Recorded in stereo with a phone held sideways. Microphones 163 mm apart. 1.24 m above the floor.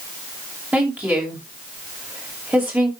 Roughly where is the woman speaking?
Centre.